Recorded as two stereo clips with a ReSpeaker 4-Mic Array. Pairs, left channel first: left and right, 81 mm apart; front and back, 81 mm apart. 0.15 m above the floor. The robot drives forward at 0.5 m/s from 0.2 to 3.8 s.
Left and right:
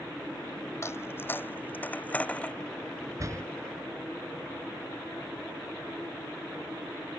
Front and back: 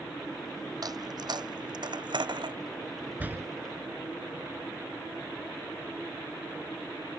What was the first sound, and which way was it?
A dropped coin, 145° left.